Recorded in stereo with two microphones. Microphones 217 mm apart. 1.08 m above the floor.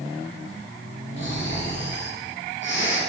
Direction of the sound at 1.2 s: 55° left (ahead or behind).